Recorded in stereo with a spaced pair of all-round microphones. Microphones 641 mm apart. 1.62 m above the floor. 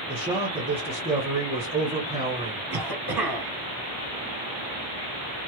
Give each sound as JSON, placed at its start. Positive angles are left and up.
{"t": 0.1, "sound": "a man speaking", "side_deg": -10, "distance_m": 0.9}
{"t": 2.7, "sound": "a cough", "side_deg": -35, "distance_m": 1.0}